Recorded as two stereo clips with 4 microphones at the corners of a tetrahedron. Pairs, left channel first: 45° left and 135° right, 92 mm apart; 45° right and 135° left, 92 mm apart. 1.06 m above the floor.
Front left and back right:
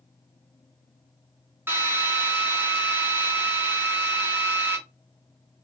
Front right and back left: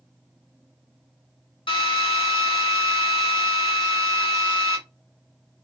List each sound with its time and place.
1.7 s a drill: 70° right, 1.3 m